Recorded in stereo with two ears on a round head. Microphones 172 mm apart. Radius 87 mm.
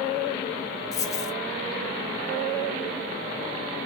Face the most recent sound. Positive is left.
turn(degrees=15)  # may be behind; listen again after turning